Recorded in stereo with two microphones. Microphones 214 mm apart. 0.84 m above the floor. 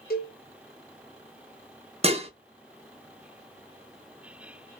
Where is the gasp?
I don't hear a gasp.